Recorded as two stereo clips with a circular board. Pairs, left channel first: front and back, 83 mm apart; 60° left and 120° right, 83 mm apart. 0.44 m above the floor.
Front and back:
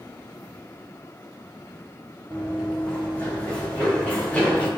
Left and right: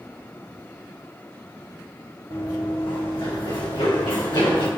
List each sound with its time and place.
2.3 s running footsteps: 60° left, 3 m; by 4.7 s 70° left, 4 m